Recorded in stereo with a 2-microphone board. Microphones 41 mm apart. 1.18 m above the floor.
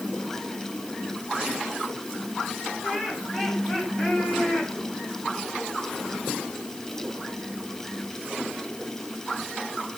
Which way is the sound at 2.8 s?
15° left (ahead or behind).